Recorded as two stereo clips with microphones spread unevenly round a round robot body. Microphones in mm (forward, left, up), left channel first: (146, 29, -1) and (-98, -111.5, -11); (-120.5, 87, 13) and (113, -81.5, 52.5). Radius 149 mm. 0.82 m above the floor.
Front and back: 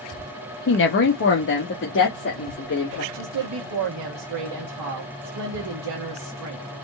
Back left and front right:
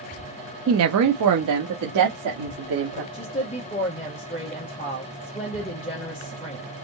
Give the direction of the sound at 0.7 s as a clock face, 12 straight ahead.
12 o'clock.